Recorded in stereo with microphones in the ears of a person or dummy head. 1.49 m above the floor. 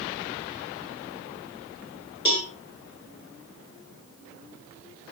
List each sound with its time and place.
2.2 s a cowbell: 25° left (ahead or behind), 1.1 m